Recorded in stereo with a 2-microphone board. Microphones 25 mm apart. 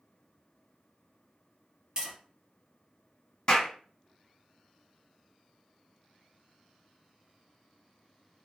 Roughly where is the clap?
Left.